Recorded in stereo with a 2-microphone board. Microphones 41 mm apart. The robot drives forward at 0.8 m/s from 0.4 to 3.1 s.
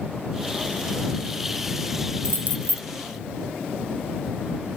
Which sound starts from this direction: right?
Keys jangling, at 2.2 s.